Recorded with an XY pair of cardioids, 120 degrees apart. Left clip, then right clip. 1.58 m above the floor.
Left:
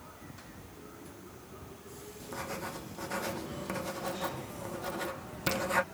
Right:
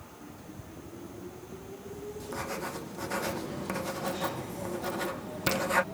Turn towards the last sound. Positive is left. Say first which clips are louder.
# right 2 dB
turn(degrees=-15)